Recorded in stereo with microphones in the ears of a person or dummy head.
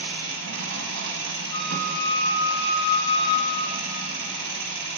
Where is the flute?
70° left (ahead or behind), 2.5 m.